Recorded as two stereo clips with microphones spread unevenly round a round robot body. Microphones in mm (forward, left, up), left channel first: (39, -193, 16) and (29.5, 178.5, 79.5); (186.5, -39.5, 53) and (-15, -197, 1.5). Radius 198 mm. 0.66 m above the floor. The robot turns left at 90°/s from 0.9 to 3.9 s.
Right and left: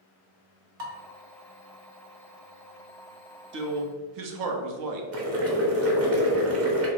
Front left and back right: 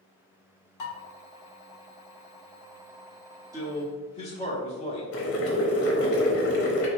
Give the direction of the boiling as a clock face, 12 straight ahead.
11 o'clock.